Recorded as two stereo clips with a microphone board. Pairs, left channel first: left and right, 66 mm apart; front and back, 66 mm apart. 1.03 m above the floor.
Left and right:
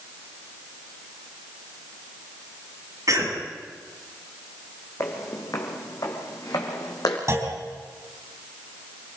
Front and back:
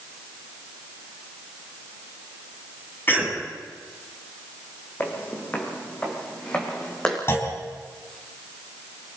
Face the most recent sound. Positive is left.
turn(degrees=-50)